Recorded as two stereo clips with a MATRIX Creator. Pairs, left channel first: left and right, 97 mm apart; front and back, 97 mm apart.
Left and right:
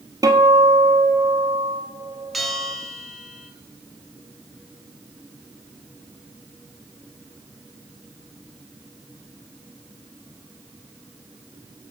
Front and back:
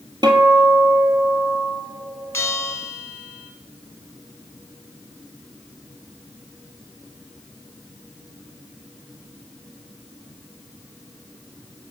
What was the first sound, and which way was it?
A guitar, 140° right.